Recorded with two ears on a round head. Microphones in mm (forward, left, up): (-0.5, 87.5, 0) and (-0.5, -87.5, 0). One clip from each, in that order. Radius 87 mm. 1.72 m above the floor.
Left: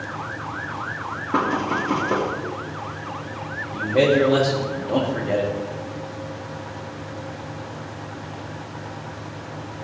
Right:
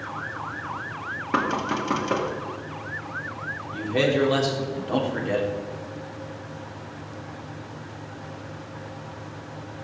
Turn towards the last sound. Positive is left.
turn(degrees=-45)  # may be behind; listen again after turning